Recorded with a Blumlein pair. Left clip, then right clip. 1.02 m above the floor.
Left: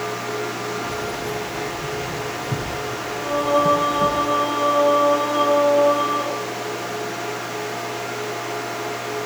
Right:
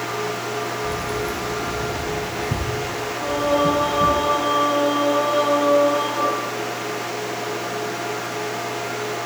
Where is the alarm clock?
No alarm clock in this recording.